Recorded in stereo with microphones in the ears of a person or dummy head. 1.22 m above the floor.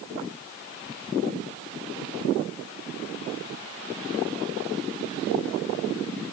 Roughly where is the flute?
No flute in this recording.